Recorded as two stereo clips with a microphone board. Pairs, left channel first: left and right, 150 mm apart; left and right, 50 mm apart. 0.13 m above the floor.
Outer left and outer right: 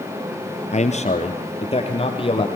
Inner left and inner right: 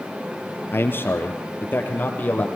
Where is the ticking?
No ticking in this recording.